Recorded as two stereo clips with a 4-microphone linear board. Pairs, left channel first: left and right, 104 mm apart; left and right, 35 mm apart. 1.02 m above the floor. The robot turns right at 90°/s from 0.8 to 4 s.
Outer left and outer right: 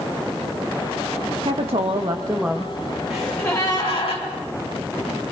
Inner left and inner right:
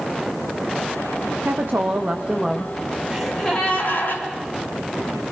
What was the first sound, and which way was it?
A woman speaking, 105° right.